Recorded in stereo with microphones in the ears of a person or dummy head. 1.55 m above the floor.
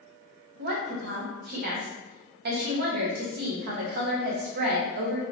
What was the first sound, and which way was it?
A woman speaking, 55° right (ahead or behind).